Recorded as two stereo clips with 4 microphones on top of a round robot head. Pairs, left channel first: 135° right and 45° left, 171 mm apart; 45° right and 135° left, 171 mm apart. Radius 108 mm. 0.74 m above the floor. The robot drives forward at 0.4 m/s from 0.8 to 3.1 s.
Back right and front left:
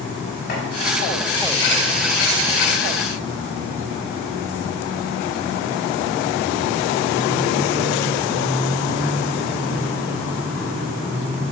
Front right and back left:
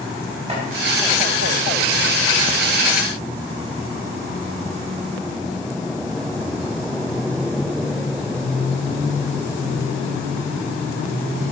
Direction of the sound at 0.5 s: 170° right.